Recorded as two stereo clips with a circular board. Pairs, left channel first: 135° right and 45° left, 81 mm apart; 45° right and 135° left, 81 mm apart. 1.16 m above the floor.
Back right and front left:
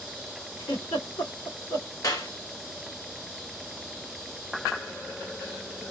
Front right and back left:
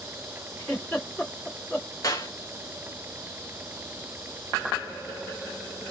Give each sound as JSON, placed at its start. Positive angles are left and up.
{"t": 0.6, "sound": "a giggle", "azimuth_deg": -135, "distance_m": 2.0}
{"t": 2.0, "sound": "a clap", "azimuth_deg": -95, "distance_m": 1.2}